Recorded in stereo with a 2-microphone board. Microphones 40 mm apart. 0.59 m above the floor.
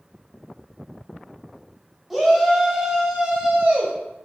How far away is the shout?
About 1.0 m.